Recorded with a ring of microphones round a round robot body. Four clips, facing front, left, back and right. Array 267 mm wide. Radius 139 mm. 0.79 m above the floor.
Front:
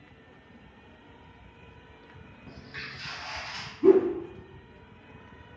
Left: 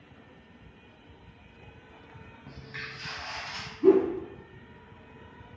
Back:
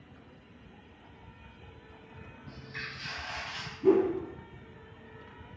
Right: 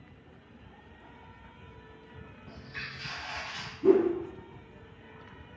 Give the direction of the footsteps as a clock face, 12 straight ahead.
10 o'clock.